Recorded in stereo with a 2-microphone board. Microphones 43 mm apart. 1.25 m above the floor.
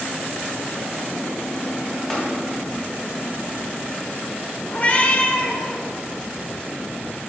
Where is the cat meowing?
35° left (ahead or behind), 1.0 m.